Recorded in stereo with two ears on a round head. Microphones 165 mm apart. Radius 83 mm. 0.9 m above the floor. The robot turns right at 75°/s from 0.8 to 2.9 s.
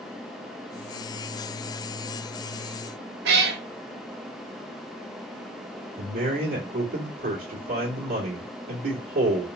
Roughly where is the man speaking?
Right.